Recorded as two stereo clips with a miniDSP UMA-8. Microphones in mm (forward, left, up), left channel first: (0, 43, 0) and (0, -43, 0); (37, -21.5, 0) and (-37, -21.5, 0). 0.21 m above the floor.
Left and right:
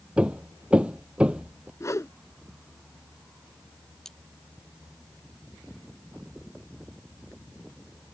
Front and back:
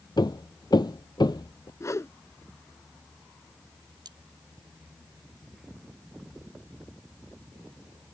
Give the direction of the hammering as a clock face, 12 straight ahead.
12 o'clock.